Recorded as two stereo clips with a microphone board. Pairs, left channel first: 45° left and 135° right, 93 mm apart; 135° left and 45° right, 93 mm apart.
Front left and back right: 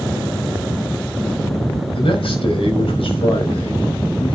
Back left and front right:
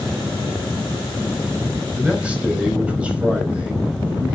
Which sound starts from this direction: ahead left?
A man speaking, at 1.9 s.